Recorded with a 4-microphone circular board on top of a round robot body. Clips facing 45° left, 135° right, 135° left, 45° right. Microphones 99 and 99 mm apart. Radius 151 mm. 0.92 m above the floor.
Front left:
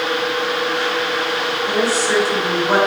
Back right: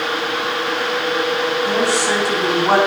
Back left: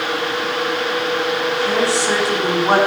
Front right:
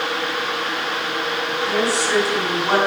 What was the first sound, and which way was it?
A woman speaking, 160° right.